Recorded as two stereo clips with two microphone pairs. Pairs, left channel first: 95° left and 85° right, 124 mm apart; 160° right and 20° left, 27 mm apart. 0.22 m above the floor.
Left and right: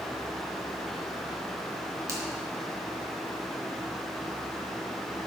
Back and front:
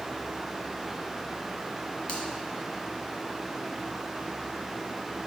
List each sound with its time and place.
2.1 s a finger snap: 140° right, 1.8 m